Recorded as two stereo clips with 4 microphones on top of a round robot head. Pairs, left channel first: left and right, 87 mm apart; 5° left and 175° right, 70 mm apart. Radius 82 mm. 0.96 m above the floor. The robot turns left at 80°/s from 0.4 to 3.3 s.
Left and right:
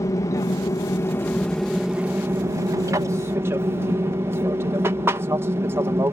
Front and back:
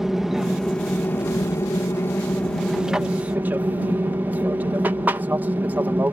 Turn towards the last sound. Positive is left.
turn(degrees=-130)